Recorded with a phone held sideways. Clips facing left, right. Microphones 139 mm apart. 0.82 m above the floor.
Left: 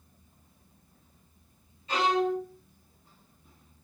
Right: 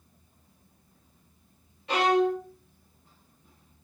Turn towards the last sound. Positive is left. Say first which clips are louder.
# right 3 dB
turn(degrees=-75)  # may be behind; listen again after turning